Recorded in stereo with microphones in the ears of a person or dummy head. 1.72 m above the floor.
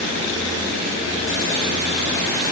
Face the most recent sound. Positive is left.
No sound to turn to.